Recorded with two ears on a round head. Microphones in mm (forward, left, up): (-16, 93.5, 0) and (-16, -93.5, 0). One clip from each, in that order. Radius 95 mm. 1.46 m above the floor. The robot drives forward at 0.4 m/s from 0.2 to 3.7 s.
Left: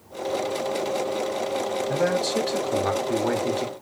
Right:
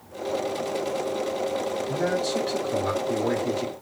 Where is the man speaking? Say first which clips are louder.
Left 3 dB; 55° left (ahead or behind), 3 m; by 3.7 s 45° left (ahead or behind), 3.5 m.